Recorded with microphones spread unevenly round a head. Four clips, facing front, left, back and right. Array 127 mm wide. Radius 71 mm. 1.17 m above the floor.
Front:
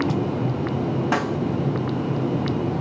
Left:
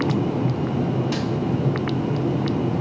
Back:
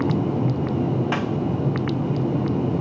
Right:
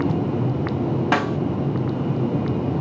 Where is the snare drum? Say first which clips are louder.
Right 4 dB, front 1 dB; 55° right, 0.7 m.